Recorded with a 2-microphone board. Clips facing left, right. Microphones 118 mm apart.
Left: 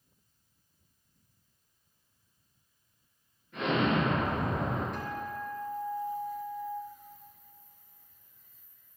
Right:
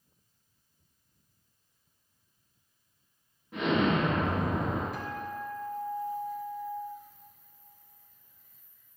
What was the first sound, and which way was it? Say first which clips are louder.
An explosion: right 1 dB; 90° right.